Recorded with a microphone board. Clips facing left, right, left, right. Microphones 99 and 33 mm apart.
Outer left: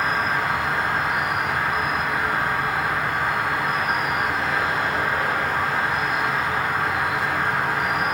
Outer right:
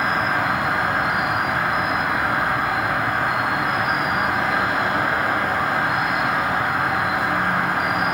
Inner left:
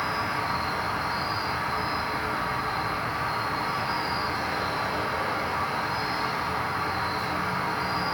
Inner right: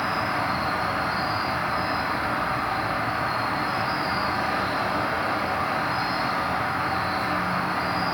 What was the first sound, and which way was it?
An insect, 50° right (ahead or behind).